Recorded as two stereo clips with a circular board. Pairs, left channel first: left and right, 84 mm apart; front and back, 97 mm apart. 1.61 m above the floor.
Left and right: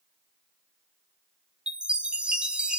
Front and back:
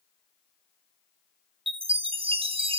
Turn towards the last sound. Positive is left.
turn(degrees=-170)